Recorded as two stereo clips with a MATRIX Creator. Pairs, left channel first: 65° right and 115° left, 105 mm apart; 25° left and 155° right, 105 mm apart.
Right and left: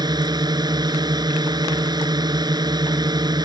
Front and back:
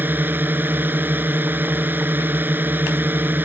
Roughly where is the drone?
Behind left.